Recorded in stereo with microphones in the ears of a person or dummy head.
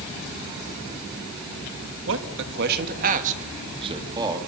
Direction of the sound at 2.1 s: 70° right (ahead or behind).